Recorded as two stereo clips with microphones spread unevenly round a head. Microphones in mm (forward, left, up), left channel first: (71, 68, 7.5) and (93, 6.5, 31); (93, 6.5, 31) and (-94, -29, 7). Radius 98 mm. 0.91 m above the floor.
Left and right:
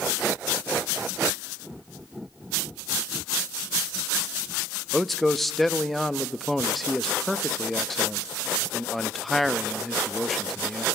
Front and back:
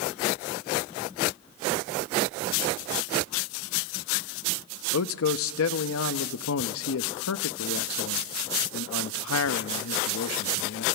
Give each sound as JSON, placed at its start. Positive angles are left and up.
{"t": 4.9, "sound": "a man speaking", "azimuth_deg": 30, "distance_m": 0.8}